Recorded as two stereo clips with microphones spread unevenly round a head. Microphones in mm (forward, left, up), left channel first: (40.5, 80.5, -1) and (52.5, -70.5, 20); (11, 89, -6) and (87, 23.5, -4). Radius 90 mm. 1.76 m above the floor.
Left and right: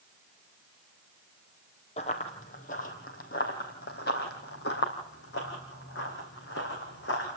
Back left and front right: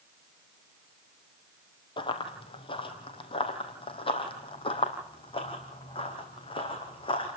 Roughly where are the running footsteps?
Behind left.